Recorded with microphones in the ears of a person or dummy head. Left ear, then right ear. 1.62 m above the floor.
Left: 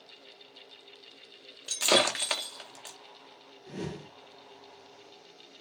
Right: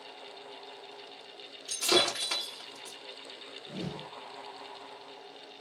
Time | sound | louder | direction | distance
1.7 | breaking glass | left 2 dB | 30° left (ahead or behind) | 0.7 m
3.7 | a whoosh | left 2 dB | 50° left (ahead or behind) | 1.4 m